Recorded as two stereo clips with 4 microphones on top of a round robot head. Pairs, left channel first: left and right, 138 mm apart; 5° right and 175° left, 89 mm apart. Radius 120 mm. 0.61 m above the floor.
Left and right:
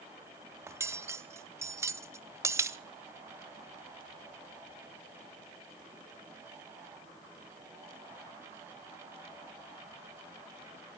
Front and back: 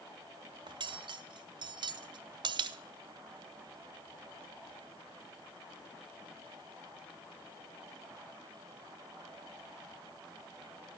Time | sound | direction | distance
0.7 | cutlery clinking | 160° right | 0.6 m